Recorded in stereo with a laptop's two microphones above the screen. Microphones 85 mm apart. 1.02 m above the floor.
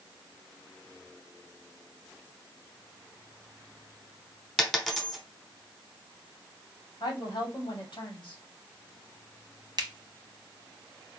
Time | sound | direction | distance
4.6 | a dropped coin | 5° left (ahead or behind) | 1.0 m
7.0 | a woman speaking | 70° left (ahead or behind) | 2 m
9.8 | a finger snap | 50° right (ahead or behind) | 1.1 m